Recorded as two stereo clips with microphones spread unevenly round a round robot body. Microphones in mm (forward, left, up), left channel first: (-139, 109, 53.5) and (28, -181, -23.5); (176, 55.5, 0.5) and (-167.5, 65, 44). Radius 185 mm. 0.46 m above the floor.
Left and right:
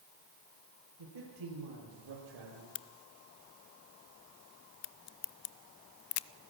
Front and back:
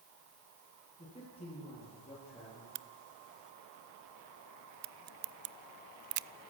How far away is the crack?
About 0.7 m.